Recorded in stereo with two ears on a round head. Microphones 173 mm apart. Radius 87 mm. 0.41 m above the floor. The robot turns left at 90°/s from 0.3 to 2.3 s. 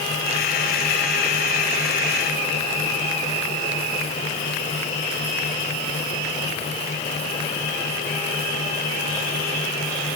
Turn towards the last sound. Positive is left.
No sound to turn to.